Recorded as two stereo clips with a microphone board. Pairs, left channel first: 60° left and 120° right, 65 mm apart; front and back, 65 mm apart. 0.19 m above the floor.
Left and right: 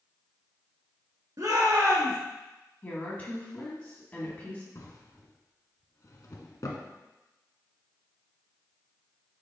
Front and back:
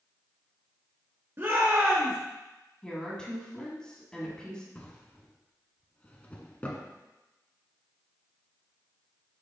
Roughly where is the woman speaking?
Ahead left.